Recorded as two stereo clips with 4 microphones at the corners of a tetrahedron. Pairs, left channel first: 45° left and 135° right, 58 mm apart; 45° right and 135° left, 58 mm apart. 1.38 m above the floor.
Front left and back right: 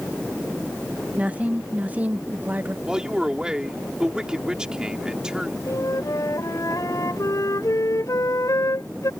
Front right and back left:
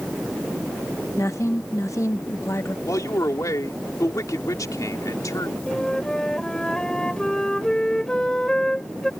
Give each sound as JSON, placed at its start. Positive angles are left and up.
{"t": 1.2, "sound": "a woman speaking", "azimuth_deg": -70}
{"t": 2.9, "sound": "a man speaking", "azimuth_deg": -60}
{"t": 5.7, "sound": "a flute", "azimuth_deg": 30}